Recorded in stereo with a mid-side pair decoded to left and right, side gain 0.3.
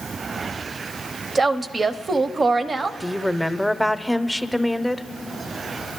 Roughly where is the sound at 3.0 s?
Ahead.